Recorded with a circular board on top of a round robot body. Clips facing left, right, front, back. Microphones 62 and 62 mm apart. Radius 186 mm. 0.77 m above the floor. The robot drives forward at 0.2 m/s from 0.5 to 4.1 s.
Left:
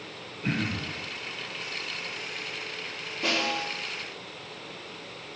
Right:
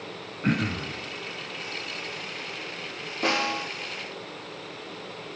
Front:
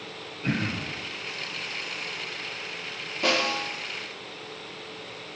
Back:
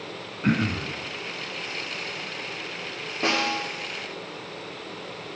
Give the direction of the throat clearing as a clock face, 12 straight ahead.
4 o'clock.